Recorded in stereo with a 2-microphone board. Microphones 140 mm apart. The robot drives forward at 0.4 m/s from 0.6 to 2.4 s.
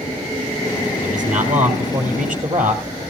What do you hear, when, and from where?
1.0 s a man speaking: 60° right (ahead or behind), 4 m; by 2.8 s 65° right (ahead or behind), 4 m